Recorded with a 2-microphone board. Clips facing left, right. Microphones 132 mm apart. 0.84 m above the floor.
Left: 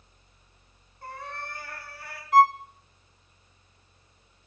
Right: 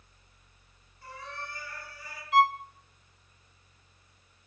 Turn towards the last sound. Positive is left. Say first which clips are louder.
# left 5 dB
turn(degrees=40)  # may be behind; listen again after turning